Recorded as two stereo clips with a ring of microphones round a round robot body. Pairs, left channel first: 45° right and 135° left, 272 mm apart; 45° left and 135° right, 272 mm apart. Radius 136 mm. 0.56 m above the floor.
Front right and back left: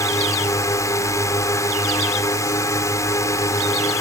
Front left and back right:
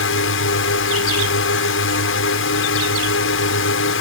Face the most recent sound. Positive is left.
turn(degrees=30)